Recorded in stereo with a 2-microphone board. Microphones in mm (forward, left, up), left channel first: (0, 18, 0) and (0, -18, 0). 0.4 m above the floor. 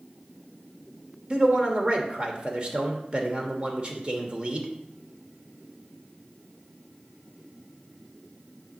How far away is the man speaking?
About 1.0 m.